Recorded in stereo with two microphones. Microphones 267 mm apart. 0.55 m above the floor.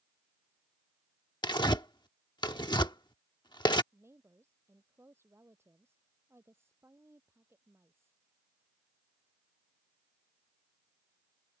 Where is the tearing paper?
15° left (ahead or behind).